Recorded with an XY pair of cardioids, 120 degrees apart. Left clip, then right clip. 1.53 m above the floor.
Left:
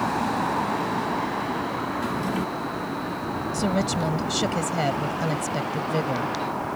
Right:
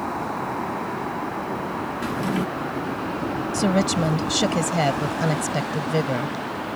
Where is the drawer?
20° right.